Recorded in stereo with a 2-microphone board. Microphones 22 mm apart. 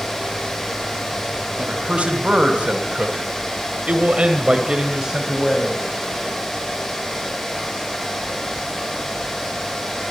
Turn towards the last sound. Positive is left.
turn(degrees=-15)  # may be behind; listen again after turning